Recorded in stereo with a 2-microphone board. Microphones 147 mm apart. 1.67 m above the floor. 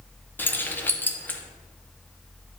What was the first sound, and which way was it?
Keys jangling, 15° left (ahead or behind).